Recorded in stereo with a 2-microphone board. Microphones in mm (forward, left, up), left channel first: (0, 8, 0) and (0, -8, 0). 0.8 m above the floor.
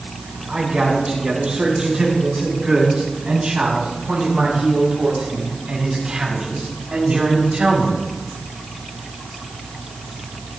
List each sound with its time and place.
0.5 s a man speaking: 80° right, 8 m; by 8.0 s 70° right (ahead or behind), 4.5 m